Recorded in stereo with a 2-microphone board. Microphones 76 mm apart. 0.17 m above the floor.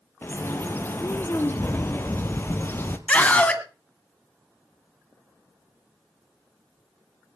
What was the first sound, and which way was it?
A bird, 25° left (ahead or behind).